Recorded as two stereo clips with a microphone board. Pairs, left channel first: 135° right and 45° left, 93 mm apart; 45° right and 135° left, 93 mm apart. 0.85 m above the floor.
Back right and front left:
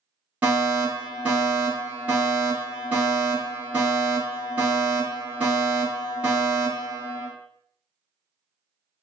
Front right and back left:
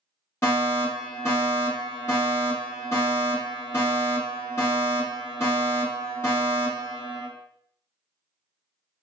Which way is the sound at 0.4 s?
15° right.